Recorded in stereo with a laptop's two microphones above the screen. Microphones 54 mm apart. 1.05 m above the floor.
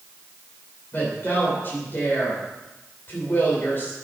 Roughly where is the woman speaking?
Left.